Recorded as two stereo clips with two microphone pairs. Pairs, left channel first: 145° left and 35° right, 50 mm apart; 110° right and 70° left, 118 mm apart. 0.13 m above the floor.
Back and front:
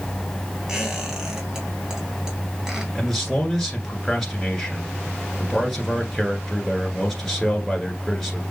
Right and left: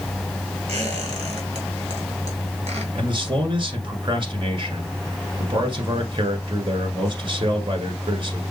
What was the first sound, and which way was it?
A squeak, 45° left.